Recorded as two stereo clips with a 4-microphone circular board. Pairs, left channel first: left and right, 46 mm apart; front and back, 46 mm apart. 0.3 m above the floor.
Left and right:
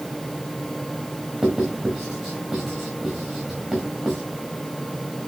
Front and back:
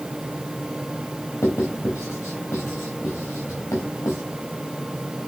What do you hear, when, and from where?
1.4 s writing: 15° right, 4.5 m